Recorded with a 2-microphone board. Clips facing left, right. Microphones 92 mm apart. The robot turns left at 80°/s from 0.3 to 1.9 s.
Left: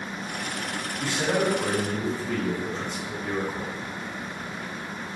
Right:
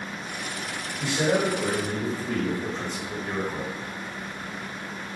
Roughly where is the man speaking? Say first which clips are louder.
Right 2 dB; ahead.